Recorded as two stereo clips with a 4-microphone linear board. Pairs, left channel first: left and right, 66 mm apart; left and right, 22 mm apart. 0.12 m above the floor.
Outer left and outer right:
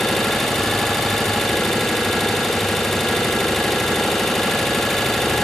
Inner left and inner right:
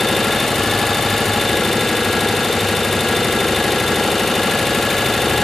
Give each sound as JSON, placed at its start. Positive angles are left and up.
{"t": 0.0, "sound": "an engine running", "side_deg": 5, "distance_m": 2.5}